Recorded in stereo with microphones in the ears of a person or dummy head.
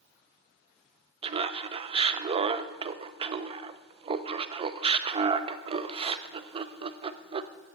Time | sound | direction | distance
1.2 | laughter | 35° right (ahead or behind) | 0.5 m